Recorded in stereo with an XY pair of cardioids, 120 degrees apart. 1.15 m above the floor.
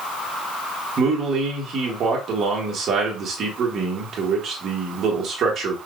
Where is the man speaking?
55° right, 1.7 m.